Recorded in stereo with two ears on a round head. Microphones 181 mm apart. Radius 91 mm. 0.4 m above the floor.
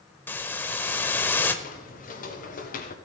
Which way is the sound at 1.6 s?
45° left (ahead or behind).